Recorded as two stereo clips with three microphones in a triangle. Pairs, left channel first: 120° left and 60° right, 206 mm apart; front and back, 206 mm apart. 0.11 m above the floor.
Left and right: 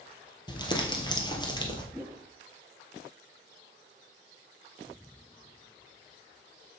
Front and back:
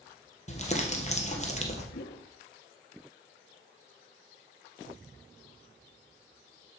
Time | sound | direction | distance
0.5 | crumpling | 50° left | 1.8 m
1.9 | a whoosh | 20° left | 0.8 m